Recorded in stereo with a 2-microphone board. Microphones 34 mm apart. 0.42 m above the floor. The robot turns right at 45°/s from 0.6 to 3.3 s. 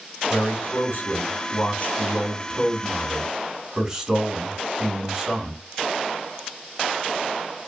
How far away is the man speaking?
About 2.5 m.